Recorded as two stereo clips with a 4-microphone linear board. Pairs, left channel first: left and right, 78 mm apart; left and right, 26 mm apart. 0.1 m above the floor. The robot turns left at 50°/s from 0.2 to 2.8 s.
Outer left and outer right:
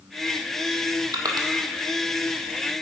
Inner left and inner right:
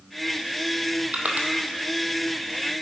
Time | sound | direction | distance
1.1 | crushing | 55° right (ahead or behind) | 1.5 m